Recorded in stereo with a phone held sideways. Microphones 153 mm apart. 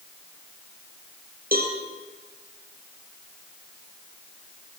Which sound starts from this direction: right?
A cowbell, at 1.5 s.